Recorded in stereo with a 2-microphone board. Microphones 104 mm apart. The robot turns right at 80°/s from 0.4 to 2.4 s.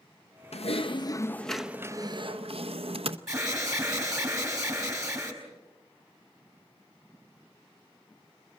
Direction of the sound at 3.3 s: 30° right (ahead or behind).